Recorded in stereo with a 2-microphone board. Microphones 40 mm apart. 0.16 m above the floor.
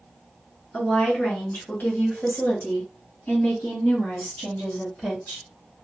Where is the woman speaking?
40° left (ahead or behind), 1.9 m; by 5.5 s 70° left (ahead or behind), 4 m.